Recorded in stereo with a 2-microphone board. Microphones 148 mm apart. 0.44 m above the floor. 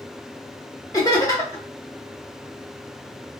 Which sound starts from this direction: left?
Laughter, at 0.9 s.